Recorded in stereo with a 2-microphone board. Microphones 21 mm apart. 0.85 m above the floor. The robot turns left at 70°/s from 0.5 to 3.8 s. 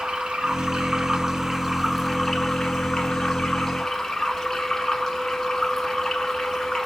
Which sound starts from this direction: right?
Running water, at 0.0 s.